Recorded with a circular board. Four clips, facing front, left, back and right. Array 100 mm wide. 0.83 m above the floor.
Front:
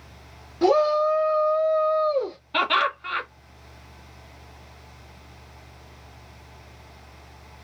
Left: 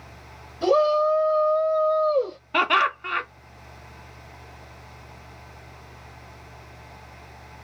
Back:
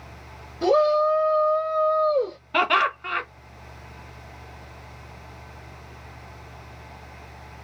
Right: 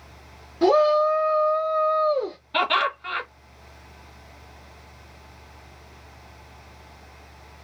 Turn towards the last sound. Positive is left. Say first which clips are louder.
# left 2 dB, back 2 dB
turn(degrees=125)